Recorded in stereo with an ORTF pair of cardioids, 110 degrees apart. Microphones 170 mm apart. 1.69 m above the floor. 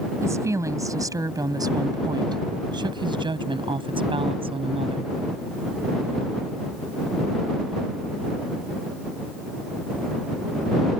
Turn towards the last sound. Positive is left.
turn(degrees=-35)